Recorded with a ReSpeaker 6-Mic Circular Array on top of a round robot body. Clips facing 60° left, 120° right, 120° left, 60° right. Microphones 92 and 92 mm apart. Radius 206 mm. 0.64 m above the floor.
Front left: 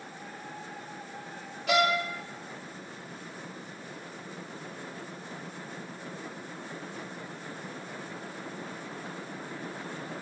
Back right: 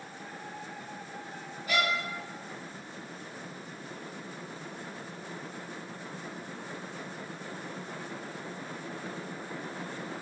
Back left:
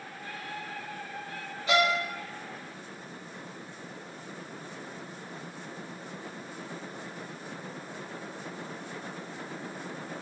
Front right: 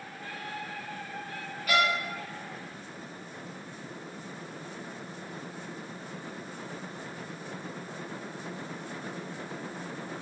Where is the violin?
55° left, 1.6 m.